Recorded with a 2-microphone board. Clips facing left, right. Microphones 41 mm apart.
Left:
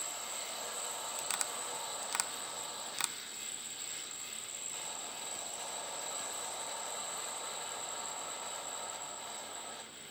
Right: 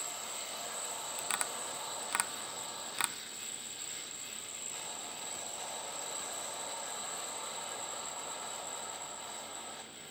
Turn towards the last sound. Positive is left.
turn(degrees=-15)  # may be behind; listen again after turning